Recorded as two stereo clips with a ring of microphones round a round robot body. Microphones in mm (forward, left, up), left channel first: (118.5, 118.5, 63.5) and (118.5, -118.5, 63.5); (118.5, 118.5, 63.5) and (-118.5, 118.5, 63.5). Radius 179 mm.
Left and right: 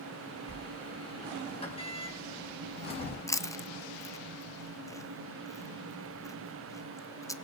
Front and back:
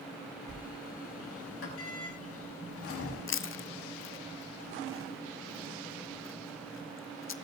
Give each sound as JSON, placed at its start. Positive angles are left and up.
{"t": 0.5, "sound": "a sliding door", "azimuth_deg": 25, "distance_m": 5.5}
{"t": 3.3, "sound": "chewing", "azimuth_deg": 15, "distance_m": 1.0}